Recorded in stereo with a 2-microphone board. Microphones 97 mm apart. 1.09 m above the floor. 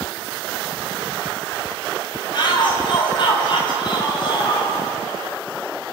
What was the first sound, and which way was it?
A shout, 50° left (ahead or behind).